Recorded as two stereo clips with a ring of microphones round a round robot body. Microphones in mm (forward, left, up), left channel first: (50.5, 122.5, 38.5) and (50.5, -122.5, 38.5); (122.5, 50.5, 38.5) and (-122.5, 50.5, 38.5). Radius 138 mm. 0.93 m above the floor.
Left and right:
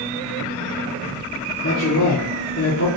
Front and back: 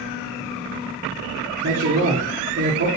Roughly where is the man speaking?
Behind left.